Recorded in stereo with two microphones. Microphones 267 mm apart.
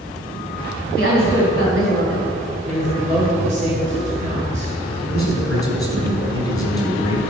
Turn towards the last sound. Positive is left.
turn(degrees=-55)  # may be behind; listen again after turning